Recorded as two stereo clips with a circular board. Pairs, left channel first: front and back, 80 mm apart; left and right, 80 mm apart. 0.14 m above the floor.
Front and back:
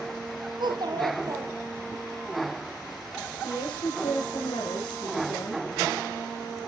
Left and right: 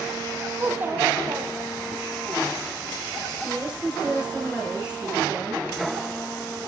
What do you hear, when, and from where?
0.6 s a child speaking: 160° right, 3 m; by 2.0 s 125° right, 2 m
3.4 s a woman speaking: 10° right, 6 m